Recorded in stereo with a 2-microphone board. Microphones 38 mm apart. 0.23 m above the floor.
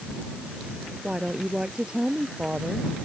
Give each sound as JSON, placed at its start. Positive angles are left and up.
{"t": 1.0, "sound": "a woman speaking", "side_deg": -30}